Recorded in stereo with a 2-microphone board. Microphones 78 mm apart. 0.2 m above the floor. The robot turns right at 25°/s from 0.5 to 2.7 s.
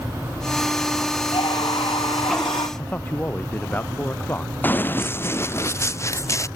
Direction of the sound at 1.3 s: 70° left.